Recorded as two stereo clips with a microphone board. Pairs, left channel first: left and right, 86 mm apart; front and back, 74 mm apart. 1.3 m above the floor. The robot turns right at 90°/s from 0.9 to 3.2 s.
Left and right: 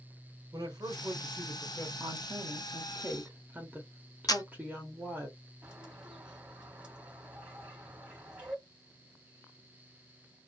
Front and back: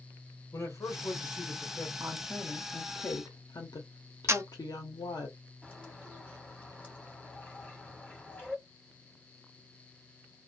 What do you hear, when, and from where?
0.5 s a man speaking: 50° right, 1.0 m; by 1.9 s 40° left, 1.0 m
2.0 s a woman speaking: 130° right, 0.7 m; by 5.3 s 20° right, 0.7 m
4.3 s a camera shutter: 130° left, 0.5 m
5.6 s a bird: 35° right, 1.2 m